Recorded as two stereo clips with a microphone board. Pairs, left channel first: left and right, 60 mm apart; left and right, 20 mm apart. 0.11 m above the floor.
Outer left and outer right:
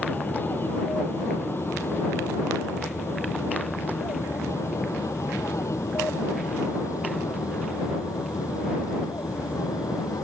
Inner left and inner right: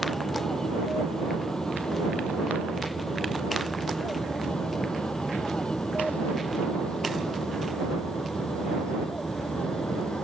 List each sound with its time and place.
0.0 s an aircraft: 35° left (ahead or behind); by 10.2 s 65° left (ahead or behind)